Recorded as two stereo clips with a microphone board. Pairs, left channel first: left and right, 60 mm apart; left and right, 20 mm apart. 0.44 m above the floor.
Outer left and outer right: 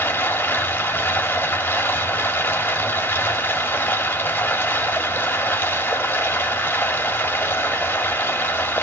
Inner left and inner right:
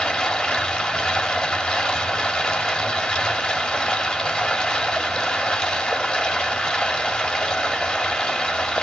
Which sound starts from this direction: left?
Running water, at 0.0 s.